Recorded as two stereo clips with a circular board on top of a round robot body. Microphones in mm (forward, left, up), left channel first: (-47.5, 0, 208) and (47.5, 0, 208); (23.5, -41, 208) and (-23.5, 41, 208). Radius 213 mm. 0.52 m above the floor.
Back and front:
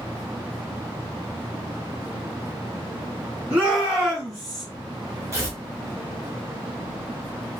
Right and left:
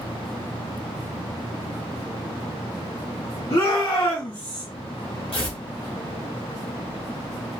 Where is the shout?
75° right, 1.7 m; by 4.7 s 90° right, 1.1 m.